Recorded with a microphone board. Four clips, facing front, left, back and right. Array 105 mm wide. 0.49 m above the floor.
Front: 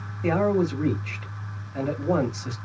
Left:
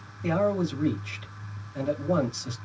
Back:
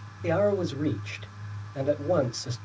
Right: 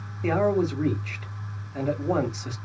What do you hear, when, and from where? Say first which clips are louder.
0.2 s a man speaking: right 3 dB, front 2 dB; 45° right, 1.4 m